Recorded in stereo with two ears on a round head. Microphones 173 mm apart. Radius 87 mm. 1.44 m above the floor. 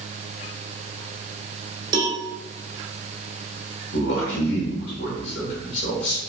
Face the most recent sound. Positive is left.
turn(degrees=70)  # may be behind; listen again after turning